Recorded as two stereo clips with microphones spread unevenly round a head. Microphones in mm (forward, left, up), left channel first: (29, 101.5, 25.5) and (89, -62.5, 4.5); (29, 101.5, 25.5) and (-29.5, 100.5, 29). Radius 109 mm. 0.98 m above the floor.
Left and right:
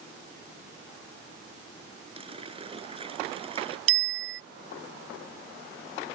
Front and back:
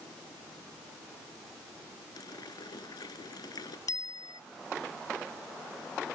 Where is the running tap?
10° right.